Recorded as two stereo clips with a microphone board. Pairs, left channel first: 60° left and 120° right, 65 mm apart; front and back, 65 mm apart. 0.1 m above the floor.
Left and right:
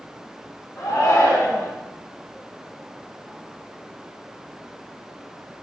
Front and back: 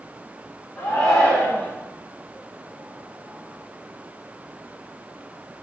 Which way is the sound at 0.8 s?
60° left.